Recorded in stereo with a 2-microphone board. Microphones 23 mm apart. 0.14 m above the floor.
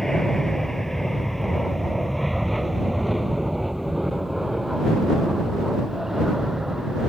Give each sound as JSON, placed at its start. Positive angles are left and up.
{"t": 0.0, "sound": "an aircraft", "side_deg": 20}